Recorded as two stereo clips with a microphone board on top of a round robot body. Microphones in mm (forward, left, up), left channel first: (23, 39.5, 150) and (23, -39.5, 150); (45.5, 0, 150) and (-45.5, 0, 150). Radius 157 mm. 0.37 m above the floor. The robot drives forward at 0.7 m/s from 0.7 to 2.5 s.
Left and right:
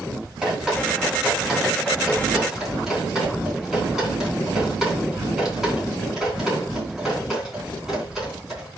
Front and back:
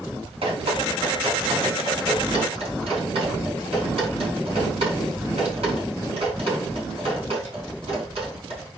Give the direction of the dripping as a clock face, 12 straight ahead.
6 o'clock.